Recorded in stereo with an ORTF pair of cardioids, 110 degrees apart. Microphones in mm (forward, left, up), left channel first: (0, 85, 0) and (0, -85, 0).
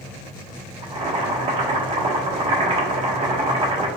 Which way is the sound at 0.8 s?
40° right.